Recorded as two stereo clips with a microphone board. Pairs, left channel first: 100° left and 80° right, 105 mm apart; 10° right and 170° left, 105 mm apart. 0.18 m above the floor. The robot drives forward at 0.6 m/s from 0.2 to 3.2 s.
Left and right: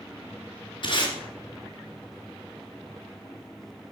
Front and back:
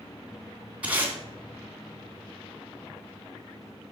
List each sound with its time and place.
0.8 s tape being pulled: 95° left, 1.9 m; by 1.1 s 105° left, 1.9 m